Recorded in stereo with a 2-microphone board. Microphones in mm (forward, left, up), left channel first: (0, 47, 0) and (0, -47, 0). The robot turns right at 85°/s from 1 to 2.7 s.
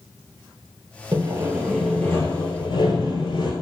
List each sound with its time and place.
1.1 s sawing: 55° right, 1.0 m; by 3.5 s 80° left, 1.0 m